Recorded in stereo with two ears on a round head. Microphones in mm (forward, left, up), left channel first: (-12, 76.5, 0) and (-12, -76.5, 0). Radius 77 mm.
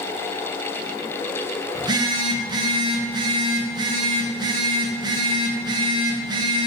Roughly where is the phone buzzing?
Right.